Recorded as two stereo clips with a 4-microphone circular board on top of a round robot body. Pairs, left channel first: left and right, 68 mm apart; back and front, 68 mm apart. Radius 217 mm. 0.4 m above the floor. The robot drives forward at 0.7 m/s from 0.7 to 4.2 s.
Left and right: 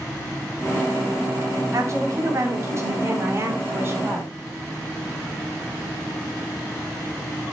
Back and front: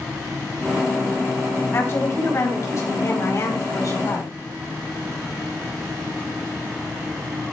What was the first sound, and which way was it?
A woman speaking, 125° right.